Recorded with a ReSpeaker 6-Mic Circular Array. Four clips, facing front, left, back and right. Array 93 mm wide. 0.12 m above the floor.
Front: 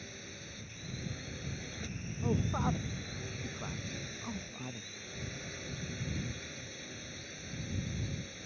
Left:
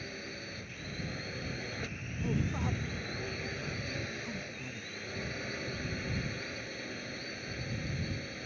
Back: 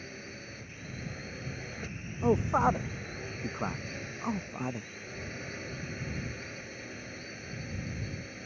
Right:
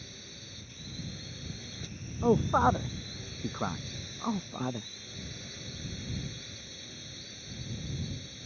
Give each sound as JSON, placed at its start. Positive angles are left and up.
{"t": 0.0, "sound": "a drone", "azimuth_deg": 115}
{"t": 2.2, "sound": "a man speaking", "azimuth_deg": -125}